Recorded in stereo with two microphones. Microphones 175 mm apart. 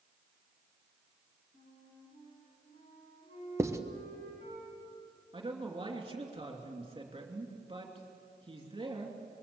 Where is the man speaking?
30° right (ahead or behind), 3 m.